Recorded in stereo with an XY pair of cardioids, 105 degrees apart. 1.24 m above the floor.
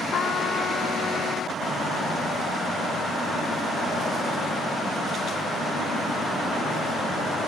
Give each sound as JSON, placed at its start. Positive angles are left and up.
{"t": 0.1, "sound": "a trumpet", "azimuth_deg": 55, "distance_m": 1.1}